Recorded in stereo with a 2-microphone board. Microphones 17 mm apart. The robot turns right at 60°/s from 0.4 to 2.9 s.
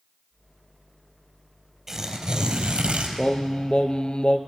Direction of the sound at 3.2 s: 70° left (ahead or behind).